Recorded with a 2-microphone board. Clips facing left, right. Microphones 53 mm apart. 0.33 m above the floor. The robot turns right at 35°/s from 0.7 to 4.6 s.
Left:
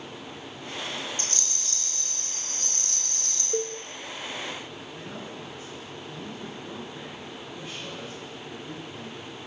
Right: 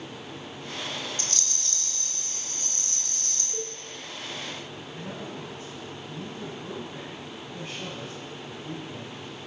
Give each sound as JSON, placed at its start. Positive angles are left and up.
{"t": 1.2, "sound": "a rattle", "azimuth_deg": 145, "distance_m": 1.5}
{"t": 3.5, "sound": "a cowbell", "side_deg": 55, "distance_m": 0.7}
{"t": 4.9, "sound": "a man speaking", "side_deg": -40, "distance_m": 2.5}